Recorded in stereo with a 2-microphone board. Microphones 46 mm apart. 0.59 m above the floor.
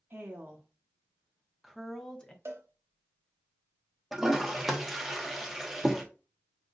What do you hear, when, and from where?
0.1 s a woman speaking: 45° right (ahead or behind), 0.9 m; by 2.4 s 20° left (ahead or behind), 0.9 m
2.5 s a cowbell: 75° right (ahead or behind), 0.7 m
4.1 s a toilet flushing: 5° right (ahead or behind), 0.7 m